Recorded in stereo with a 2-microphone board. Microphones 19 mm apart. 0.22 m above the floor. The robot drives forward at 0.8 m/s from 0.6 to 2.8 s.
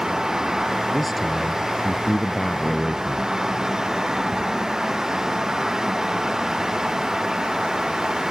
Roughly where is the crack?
I don't hear a crack.